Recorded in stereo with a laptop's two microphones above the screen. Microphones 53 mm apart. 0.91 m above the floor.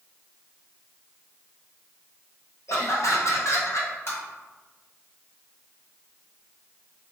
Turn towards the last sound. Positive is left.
turn(degrees=55)  # may be behind; listen again after turning